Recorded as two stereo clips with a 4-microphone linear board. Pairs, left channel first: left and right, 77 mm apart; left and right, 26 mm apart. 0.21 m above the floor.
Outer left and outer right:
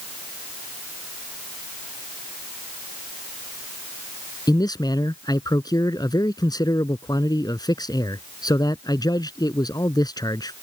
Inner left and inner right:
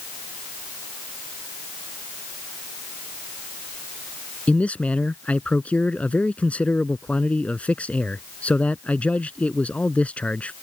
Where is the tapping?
No tapping in this recording.